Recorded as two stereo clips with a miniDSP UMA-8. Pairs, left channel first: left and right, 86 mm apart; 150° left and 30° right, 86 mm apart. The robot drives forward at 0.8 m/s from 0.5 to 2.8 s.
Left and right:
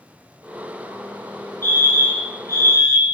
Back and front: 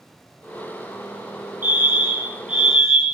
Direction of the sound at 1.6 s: 35° left.